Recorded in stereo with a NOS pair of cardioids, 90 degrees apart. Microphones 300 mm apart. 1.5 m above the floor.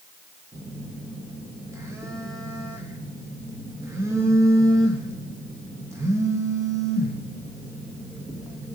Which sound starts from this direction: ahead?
A phone buzzing, at 0.5 s.